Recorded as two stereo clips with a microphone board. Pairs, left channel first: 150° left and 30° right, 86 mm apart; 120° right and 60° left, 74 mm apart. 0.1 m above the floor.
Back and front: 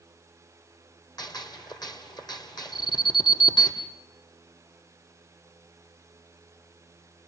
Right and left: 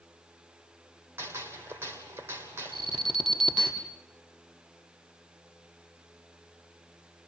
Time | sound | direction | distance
1.2 | a gunshot | 115° left | 2.5 m
2.7 | an alarm | 140° left | 4.5 m